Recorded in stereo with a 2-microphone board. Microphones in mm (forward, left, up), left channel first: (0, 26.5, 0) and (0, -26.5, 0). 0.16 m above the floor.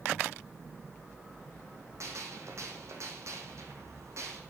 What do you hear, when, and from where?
2.0 s a gunshot: 65° right (ahead or behind), 2.5 m